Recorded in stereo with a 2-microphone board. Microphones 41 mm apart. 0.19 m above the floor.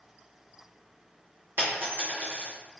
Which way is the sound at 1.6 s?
55° right (ahead or behind).